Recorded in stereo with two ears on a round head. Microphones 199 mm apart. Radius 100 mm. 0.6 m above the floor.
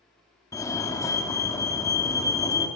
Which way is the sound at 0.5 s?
15° left (ahead or behind).